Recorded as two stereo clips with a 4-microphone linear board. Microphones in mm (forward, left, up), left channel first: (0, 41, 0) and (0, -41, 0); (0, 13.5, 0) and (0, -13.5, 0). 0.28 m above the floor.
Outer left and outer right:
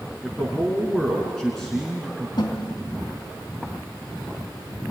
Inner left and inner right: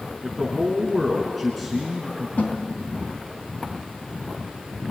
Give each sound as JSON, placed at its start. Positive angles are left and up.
{"t": 0.2, "sound": "a man speaking", "side_deg": 5, "distance_m": 3.5}
{"t": 2.4, "sound": "a snare drum", "side_deg": 60, "distance_m": 3.0}